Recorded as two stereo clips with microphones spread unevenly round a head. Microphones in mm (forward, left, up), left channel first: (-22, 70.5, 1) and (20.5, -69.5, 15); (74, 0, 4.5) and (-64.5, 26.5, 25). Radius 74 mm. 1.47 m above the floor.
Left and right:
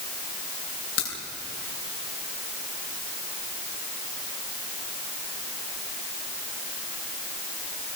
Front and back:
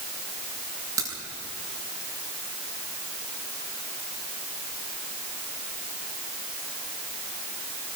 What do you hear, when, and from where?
1.0 s a crack: 100° left, 7 m